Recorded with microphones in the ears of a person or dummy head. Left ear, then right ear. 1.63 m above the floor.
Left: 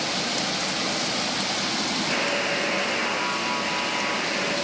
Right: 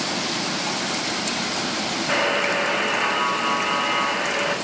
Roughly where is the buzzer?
Right.